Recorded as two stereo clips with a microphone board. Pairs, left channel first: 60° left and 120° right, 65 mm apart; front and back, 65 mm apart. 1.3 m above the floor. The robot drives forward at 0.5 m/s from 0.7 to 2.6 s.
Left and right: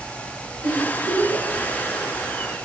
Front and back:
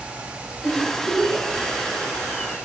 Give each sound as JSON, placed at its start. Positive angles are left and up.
{"t": 0.6, "sound": "a giggle", "azimuth_deg": 100, "distance_m": 2.5}